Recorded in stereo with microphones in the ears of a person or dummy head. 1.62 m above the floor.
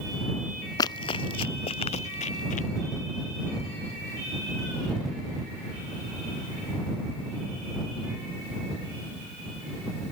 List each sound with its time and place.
0.8 s running footsteps: 20° left (ahead or behind); by 2.7 s 45° left (ahead or behind)